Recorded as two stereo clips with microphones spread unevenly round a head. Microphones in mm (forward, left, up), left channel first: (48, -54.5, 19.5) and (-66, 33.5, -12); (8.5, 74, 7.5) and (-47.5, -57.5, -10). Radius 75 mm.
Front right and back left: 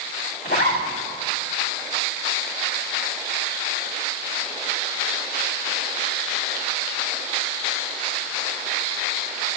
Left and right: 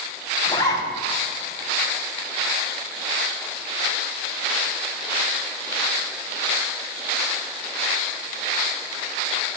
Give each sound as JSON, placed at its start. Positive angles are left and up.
{"t": 0.5, "sound": "a zipper", "azimuth_deg": -5, "distance_m": 4.0}